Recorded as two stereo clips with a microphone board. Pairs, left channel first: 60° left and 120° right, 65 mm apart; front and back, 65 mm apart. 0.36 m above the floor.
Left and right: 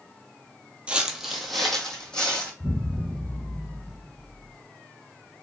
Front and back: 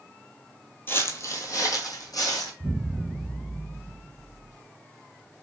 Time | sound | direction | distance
0.9 | footsteps | 50° right | 0.6 m
2.6 | an explosion | 105° left | 1.0 m